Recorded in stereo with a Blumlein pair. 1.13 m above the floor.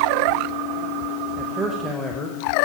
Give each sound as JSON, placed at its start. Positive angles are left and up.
{"t": 1.4, "sound": "a man speaking", "azimuth_deg": -10, "distance_m": 1.1}